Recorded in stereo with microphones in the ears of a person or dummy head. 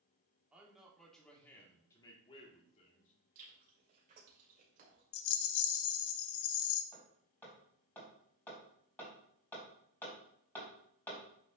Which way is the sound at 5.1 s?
85° left.